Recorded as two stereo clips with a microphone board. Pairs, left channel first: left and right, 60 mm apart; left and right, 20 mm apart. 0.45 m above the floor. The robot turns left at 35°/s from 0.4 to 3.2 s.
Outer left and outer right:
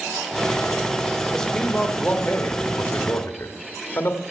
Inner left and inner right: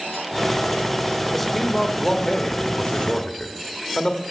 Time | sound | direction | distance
1.3 | a man speaking | 170° left | 1.2 m